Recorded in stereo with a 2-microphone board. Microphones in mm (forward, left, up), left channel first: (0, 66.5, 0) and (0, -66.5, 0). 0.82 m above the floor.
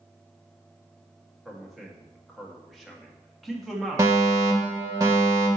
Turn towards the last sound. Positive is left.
turn(degrees=-25)  # may be behind; listen again after turning